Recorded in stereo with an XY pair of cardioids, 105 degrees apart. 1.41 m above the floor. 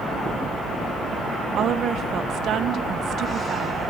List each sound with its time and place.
1.6 s a woman speaking: 60° right, 0.8 m